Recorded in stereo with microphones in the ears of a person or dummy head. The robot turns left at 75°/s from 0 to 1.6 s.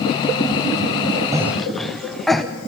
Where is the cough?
15° right (ahead or behind), 0.7 m; by 2.4 s centre (ahead or behind), 0.7 m.